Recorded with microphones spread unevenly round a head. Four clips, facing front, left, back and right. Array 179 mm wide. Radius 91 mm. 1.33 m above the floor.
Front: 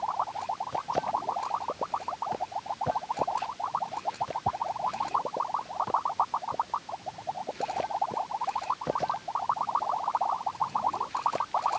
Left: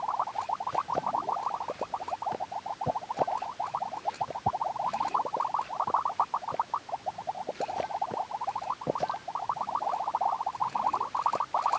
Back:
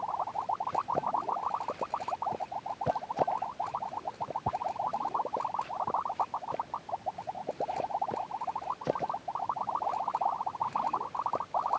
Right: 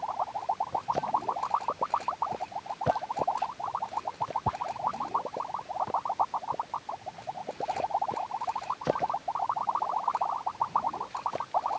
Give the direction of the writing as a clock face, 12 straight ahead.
I don't hear writing.